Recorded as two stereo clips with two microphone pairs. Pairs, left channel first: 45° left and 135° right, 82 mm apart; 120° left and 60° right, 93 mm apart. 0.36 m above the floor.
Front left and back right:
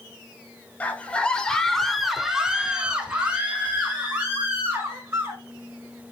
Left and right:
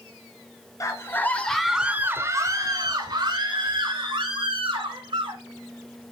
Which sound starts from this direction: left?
A scream, at 0.8 s.